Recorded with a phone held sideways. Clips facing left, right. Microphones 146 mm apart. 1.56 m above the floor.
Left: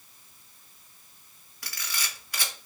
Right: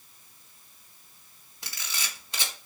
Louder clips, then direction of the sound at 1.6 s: Left 1 dB; 25° right (ahead or behind).